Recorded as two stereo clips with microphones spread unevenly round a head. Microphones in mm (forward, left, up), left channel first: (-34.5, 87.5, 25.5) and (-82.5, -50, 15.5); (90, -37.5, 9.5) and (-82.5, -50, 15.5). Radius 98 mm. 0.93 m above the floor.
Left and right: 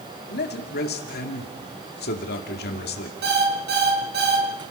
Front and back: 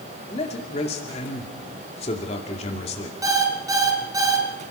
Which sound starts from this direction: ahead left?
A man speaking, at 0.3 s.